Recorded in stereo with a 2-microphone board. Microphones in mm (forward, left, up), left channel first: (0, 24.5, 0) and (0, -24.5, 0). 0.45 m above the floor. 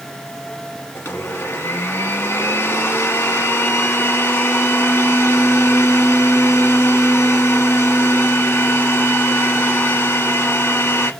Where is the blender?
55° left (ahead or behind), 0.8 m.